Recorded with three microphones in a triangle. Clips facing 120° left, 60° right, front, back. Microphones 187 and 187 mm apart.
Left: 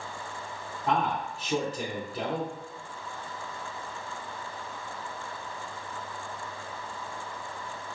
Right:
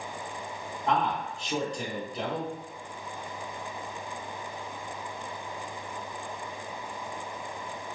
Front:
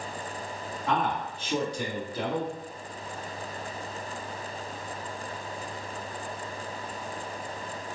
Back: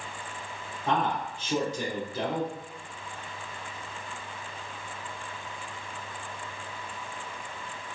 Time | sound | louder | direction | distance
0.9 | a man speaking | even, back 1 dB | 160° right | 1.4 m